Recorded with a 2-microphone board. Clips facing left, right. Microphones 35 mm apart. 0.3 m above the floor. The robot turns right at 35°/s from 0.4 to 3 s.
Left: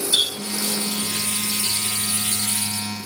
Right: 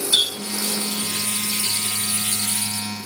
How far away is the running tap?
About 1.2 m.